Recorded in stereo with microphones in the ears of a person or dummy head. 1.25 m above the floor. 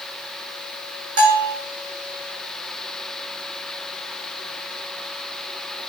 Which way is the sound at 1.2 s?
80° right.